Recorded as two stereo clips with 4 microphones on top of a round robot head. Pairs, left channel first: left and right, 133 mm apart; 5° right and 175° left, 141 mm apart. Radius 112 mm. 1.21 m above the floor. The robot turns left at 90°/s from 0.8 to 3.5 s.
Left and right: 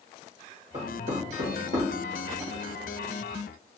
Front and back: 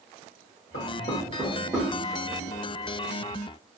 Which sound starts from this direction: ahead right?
Knocking, at 0.7 s.